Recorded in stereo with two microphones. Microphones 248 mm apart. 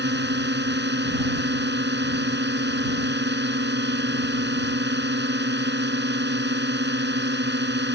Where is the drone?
45° right (ahead or behind).